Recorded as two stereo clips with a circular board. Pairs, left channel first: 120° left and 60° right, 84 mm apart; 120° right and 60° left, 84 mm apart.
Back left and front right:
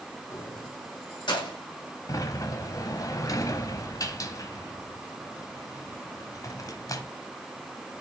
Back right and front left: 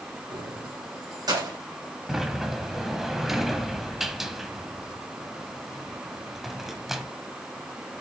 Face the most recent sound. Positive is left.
turn(degrees=145)